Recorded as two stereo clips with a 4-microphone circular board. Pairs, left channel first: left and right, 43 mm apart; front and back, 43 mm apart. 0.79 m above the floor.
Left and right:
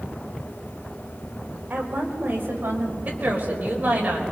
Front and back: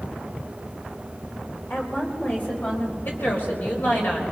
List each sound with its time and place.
1.7 s a woman speaking: 45° right, 3.5 m; by 3.0 s 55° right, 4 m
3.0 s a woman speaking: 40° right, 4 m